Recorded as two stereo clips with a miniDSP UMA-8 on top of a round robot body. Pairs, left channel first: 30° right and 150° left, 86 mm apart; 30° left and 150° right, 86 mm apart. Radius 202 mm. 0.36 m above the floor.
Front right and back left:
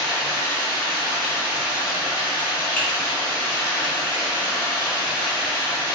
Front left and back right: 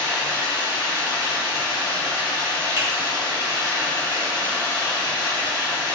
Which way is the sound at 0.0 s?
160° left.